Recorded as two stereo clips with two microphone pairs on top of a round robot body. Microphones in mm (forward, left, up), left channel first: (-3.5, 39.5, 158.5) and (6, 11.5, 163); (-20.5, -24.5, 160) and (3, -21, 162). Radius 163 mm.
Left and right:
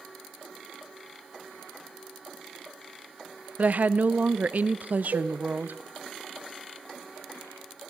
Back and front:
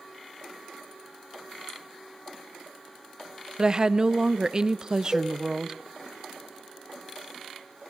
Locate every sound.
3.6 s a woman speaking: 55° right, 0.6 m
5.1 s a cowbell: 90° right, 0.8 m